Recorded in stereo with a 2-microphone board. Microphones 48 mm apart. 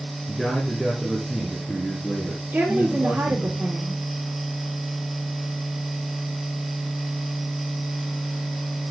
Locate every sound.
0.3 s a man speaking: centre (ahead or behind), 2.5 m; by 3.5 s 10° right (ahead or behind), 4 m
2.5 s a woman speaking: 60° right (ahead or behind), 4 m